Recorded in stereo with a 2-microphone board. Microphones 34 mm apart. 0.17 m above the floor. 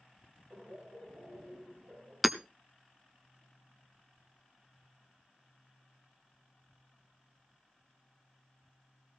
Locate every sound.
0.5 s laughter: 75° right (ahead or behind), 5 m
2.2 s hammering: 10° right (ahead or behind), 0.7 m